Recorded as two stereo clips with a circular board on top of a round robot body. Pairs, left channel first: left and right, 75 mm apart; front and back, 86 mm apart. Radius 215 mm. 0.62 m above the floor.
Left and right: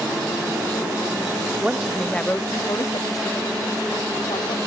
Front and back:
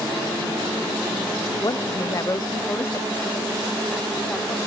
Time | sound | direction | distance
1.6 | a woman speaking | 20° right | ?